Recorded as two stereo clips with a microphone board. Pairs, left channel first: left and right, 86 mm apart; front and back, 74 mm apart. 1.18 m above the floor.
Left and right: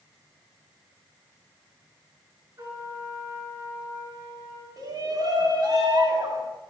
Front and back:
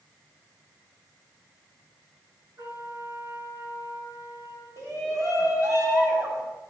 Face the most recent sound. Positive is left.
turn(degrees=-130)